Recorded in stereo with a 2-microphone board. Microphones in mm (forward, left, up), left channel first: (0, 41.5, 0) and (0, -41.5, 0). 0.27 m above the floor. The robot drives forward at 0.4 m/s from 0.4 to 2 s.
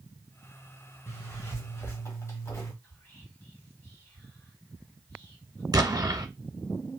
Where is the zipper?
30° left (ahead or behind), 1.3 m.